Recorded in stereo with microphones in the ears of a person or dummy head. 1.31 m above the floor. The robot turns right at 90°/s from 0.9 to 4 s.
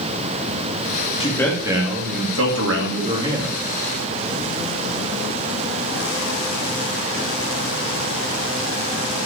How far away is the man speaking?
About 2.5 m.